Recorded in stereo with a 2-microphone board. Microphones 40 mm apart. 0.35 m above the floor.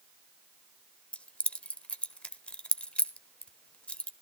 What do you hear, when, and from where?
1.1 s keys jangling: 30° left (ahead or behind), 0.9 m